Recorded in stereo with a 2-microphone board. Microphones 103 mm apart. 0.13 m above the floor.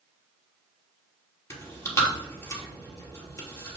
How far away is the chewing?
About 2.5 m.